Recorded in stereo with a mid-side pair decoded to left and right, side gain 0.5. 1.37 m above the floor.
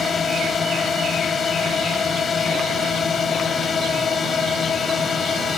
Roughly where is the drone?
Ahead left.